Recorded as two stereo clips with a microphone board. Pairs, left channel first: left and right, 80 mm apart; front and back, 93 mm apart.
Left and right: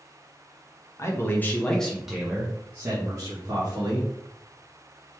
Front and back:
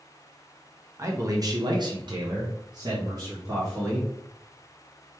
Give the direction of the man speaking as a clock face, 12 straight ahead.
8 o'clock.